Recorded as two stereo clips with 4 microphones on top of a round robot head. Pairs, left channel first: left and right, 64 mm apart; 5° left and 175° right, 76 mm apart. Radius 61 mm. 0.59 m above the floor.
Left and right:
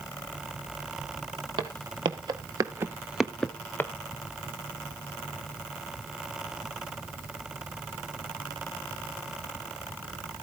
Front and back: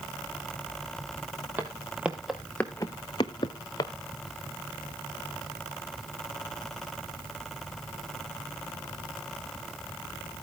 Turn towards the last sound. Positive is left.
turn(degrees=35)